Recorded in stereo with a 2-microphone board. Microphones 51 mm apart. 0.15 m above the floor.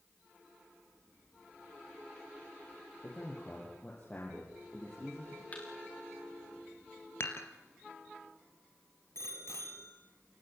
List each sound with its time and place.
3.0 s a man speaking: 35° left (ahead or behind), 5 m
5.5 s a thud: 30° left (ahead or behind), 5 m
7.2 s dishes clattering: 60° left (ahead or behind), 2.5 m
9.2 s a bicycle bell: 70° left (ahead or behind), 3 m